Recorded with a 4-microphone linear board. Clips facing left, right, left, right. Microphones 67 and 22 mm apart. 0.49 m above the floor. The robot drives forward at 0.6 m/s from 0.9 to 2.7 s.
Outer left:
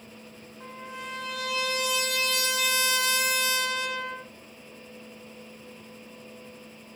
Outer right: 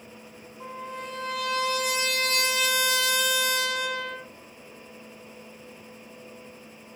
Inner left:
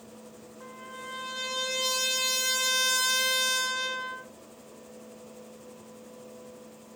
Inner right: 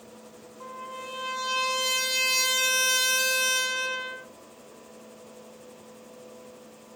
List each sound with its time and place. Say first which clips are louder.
0.6 s a trumpet: outer right 3 dB, inner right 4 dB; 45° right (ahead or behind), 3 m; by 4.3 s 60° right (ahead or behind), 2.5 m